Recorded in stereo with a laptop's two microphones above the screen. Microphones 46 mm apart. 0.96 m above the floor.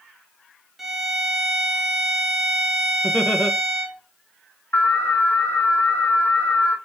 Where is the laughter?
30° left (ahead or behind), 0.6 m.